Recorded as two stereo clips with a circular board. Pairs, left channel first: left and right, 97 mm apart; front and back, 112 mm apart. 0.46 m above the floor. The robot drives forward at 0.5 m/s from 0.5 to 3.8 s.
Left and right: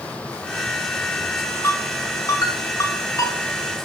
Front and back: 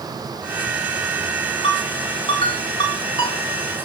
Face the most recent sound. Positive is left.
turn(degrees=45)